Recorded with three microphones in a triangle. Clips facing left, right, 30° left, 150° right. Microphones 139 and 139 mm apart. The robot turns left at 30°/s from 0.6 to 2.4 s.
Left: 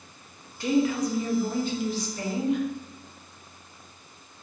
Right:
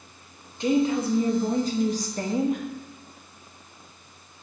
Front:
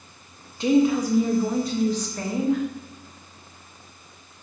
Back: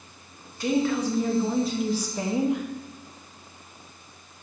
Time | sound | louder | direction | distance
0.6 | a woman speaking | right 1 dB, front 5 dB | 30° right | 0.7 m